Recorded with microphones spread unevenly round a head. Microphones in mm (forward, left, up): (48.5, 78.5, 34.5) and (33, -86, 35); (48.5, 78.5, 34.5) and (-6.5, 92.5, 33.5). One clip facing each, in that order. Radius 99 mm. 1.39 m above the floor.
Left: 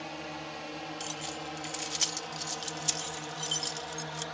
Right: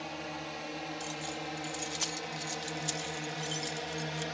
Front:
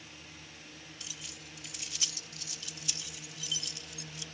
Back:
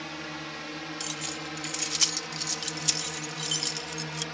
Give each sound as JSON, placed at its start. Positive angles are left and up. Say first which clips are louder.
{"t": 0.0, "sound": "a drone", "louder": "even, back 14 dB", "azimuth_deg": 175}
{"t": 1.0, "sound": "keys jangling", "louder": "right 1 dB, back 13 dB", "azimuth_deg": 155}